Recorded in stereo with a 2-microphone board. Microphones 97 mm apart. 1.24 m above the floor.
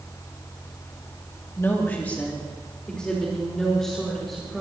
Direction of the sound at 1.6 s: 25° left (ahead or behind).